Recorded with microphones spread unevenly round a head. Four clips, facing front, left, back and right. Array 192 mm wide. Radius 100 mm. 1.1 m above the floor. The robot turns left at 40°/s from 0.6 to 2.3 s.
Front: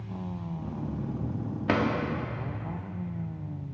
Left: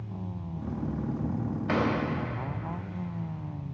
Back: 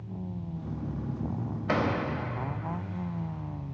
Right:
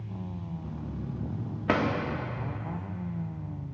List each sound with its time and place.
1.7 s a drawer: 45° right, 1.0 m; by 1.9 s 55° right, 1.0 m